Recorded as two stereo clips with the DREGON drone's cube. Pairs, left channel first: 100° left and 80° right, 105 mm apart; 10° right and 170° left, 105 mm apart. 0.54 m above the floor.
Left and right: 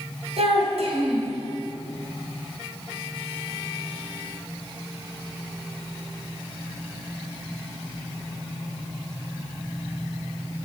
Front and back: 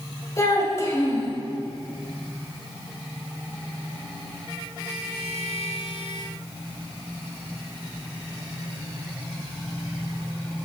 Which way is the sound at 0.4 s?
70° right.